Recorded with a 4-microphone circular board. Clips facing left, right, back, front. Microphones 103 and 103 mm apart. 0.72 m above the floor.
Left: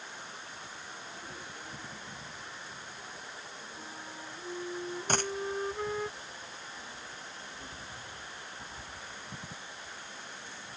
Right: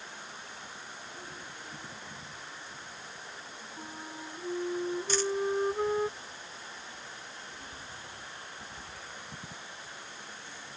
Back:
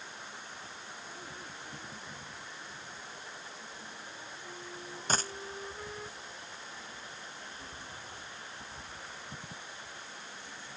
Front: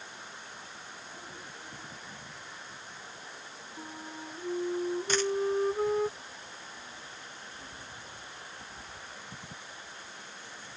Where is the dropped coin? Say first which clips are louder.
Even, front 3 dB; 125° left.